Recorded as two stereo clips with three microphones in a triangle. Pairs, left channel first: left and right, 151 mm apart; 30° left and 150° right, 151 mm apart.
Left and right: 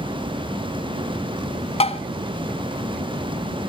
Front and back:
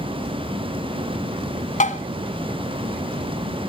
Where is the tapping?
50° left, 1.2 m.